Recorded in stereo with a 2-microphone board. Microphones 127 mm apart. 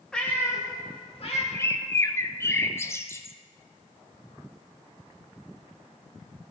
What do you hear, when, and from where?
0.1 s a cat meowing: 5° left (ahead or behind), 1.3 m; by 1.4 s 50° left (ahead or behind), 1.5 m
1.5 s a bird: 20° left (ahead or behind), 0.5 m